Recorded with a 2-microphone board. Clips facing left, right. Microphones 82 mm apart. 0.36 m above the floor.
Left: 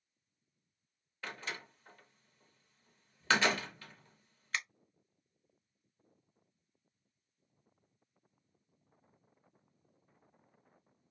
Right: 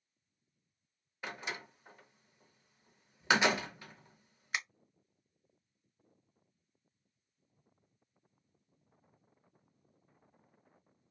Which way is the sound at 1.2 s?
15° right (ahead or behind).